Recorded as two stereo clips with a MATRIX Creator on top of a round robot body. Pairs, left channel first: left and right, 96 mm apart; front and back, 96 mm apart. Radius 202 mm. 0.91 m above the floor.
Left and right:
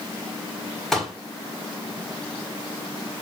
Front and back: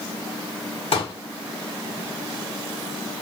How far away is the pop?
About 1.8 m.